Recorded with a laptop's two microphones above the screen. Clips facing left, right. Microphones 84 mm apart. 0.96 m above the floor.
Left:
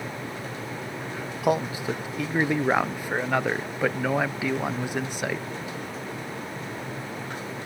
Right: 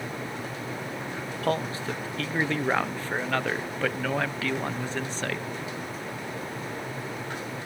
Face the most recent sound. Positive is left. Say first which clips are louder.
# left 4 dB
turn(degrees=15)  # may be behind; listen again after turning